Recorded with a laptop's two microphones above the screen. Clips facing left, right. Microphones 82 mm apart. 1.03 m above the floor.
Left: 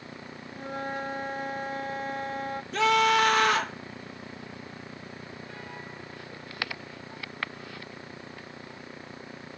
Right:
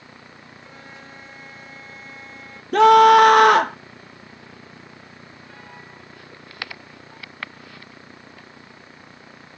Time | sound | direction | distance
0.5 | a flute | 55° left (ahead or behind) | ?
2.7 | a scream | 60° right (ahead or behind) | ?